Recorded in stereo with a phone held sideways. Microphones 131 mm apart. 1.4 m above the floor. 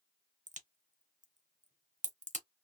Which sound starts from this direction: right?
A crack, at 0.5 s.